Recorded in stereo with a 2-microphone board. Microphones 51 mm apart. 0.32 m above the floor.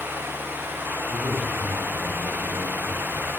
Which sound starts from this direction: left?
A man speaking, at 1.1 s.